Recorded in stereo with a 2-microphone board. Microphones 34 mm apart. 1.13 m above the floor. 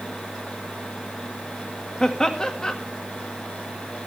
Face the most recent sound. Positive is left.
turn(degrees=25)  # may be behind; listen again after turning